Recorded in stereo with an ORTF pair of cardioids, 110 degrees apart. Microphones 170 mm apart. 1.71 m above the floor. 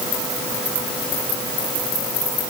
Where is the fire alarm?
I don't hear a fire alarm.